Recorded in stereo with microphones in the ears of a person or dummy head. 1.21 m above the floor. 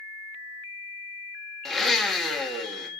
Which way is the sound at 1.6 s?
5° left (ahead or behind).